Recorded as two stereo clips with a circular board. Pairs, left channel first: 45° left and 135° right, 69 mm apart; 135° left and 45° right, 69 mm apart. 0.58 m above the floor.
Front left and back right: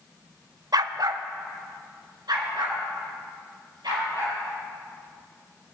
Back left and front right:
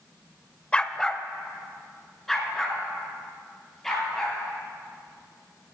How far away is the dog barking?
About 0.5 m.